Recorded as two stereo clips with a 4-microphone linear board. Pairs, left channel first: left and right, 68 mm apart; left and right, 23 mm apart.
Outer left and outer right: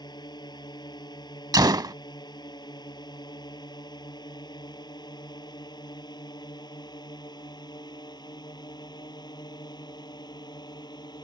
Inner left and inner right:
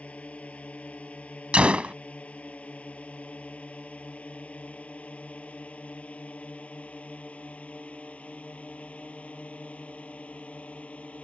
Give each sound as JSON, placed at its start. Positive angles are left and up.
{"t": 0.0, "sound": "a drone", "side_deg": 80}
{"t": 1.5, "sound": "a gunshot", "side_deg": -70}